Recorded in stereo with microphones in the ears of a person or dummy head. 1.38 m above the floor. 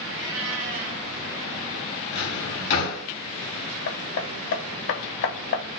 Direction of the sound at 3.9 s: 70° left (ahead or behind).